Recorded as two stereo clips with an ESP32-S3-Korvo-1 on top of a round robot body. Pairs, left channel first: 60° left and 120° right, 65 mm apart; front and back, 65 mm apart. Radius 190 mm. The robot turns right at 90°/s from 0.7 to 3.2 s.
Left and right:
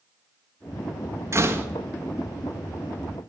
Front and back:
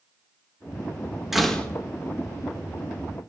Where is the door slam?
95° right, 1.3 m; by 1.7 s 65° right, 1.3 m.